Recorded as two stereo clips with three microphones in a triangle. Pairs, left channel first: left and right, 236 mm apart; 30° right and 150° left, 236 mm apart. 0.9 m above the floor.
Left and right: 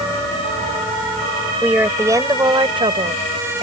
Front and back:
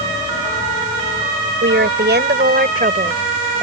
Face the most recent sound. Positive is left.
turn(degrees=-145)